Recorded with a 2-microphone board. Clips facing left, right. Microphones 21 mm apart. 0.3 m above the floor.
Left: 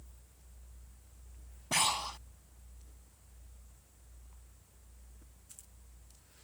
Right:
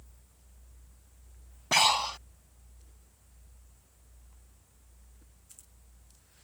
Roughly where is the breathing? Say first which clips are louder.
Right 7 dB; right.